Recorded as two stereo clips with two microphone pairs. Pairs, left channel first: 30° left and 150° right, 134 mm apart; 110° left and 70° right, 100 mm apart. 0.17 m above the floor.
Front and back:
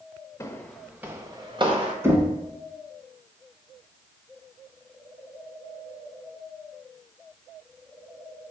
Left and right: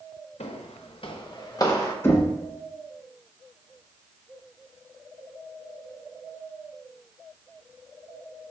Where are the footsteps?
100° left, 0.8 m; by 1.9 s 165° left, 1.3 m.